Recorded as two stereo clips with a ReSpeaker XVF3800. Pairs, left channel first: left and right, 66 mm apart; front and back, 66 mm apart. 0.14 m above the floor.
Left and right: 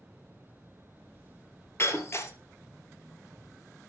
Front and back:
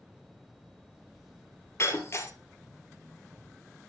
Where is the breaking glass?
40° left, 1.6 m.